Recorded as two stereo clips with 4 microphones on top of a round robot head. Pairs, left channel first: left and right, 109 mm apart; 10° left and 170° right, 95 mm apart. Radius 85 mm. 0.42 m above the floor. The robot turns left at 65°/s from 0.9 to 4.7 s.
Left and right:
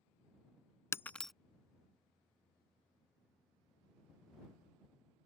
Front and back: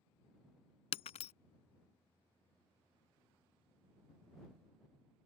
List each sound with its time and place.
0.9 s breaking glass: 25° left; by 1.3 s straight ahead